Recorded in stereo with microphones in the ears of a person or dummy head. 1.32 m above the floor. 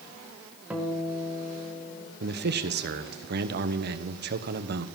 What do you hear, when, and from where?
0.7 s a guitar: 5° right (ahead or behind), 1.6 m
2.2 s a man speaking: 55° right (ahead or behind), 0.9 m